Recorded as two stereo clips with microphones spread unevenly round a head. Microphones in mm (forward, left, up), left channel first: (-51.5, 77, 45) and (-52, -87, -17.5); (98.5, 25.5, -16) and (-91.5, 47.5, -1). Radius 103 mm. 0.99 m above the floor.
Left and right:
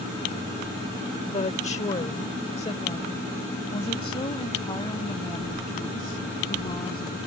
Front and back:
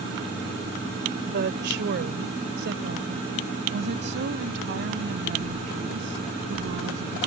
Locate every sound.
1.2 s a woman speaking: 140° left; by 7.2 s 150° left